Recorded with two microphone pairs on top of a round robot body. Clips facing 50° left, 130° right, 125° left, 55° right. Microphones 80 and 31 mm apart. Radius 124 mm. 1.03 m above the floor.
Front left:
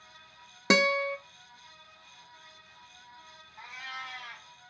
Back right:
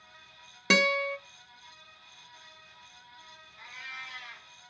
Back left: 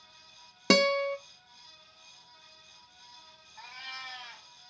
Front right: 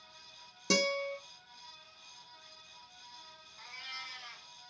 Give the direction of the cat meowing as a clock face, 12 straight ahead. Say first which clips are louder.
Front left 3 dB, back left 3 dB; 9 o'clock.